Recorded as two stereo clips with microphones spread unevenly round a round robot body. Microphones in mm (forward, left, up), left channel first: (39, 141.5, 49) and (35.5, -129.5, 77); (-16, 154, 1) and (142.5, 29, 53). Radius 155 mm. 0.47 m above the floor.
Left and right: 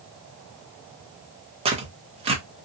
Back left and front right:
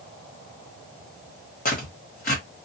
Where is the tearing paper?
160° right, 0.7 m.